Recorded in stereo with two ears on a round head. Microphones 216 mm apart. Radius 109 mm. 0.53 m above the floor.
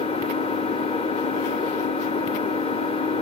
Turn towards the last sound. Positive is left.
turn(degrees=25)  # may be behind; listen again after turning